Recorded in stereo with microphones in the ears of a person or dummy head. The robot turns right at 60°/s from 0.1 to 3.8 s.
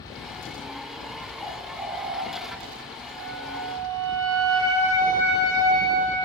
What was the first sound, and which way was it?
A bird, 175° left.